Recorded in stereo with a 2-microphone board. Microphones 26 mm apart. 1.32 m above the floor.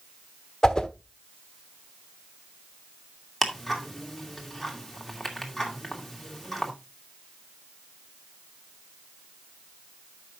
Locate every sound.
0.6 s a whoosh: 30° left (ahead or behind), 1.0 m
3.4 s ticking: 5° left (ahead or behind), 2.5 m